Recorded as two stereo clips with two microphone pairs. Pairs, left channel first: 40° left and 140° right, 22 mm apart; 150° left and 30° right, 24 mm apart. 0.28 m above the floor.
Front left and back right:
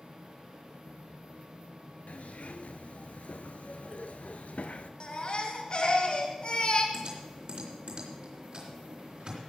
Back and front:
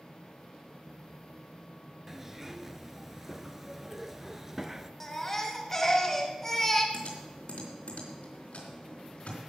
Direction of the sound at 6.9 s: 175° left.